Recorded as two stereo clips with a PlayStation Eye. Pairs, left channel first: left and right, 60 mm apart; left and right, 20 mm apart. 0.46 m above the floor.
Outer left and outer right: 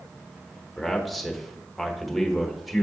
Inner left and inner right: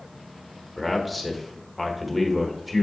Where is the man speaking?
Centre (ahead or behind), 1.0 m.